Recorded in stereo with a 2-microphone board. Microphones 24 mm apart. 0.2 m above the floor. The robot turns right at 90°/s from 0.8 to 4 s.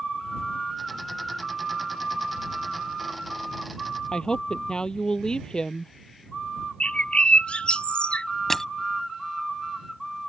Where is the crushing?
15° left (ahead or behind).